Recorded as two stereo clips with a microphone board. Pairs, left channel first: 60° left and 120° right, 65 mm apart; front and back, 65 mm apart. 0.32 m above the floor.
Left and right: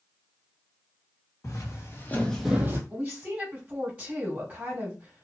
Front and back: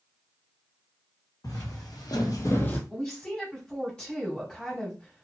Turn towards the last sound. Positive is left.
turn(degrees=-60)